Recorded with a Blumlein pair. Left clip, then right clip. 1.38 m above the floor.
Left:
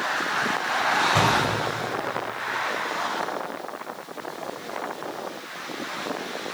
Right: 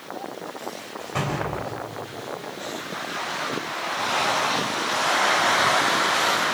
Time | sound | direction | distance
1.0 | a door slam | 15° left | 4.5 m